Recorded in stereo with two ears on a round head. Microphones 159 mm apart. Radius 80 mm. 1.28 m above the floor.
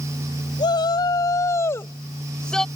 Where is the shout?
25° left (ahead or behind); by 2.7 s 5° left (ahead or behind).